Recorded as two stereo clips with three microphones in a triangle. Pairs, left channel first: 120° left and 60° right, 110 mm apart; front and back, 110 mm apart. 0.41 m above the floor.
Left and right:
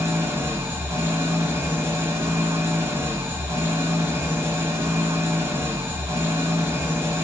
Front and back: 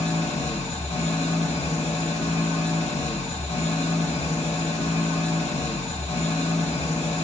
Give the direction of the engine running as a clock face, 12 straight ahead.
12 o'clock.